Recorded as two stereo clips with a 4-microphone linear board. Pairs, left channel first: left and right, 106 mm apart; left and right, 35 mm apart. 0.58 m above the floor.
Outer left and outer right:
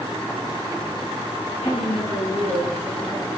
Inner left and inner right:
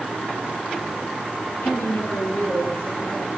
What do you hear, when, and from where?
1.6 s a woman speaking: 80° left, 7.5 m; by 3.3 s 75° left (ahead or behind), 7 m